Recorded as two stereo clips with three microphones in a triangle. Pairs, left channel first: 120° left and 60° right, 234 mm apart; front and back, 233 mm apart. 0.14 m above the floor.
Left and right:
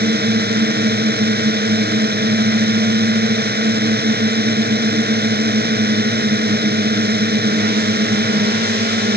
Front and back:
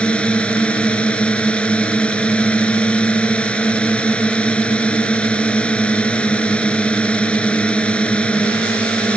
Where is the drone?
85° right.